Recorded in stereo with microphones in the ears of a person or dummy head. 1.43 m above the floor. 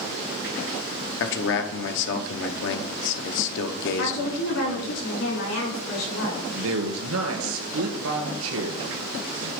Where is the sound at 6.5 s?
80° right, 2.0 m.